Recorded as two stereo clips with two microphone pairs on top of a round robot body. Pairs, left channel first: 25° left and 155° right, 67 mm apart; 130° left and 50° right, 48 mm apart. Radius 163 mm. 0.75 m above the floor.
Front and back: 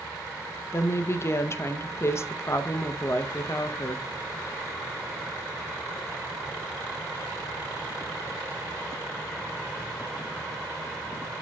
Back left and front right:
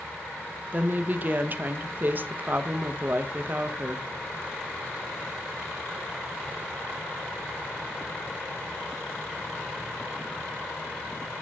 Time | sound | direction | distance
0.7 | a woman speaking | 20° right | 0.9 m